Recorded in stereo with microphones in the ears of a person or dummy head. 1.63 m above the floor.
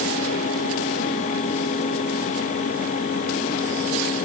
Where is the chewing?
I don't hear chewing.